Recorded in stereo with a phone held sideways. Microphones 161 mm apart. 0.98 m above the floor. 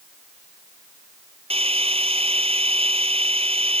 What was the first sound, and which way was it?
A drill, 35° right (ahead or behind).